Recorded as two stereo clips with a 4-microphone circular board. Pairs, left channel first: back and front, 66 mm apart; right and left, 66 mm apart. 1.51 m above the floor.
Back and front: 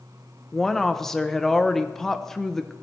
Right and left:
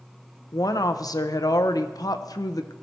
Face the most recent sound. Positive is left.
turn(degrees=-100)